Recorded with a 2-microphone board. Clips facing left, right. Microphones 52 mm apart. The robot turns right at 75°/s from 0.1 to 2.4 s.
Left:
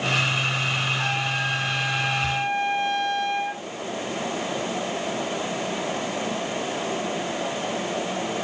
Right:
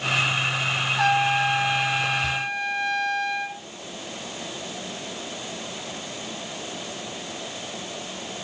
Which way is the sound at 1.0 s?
80° right.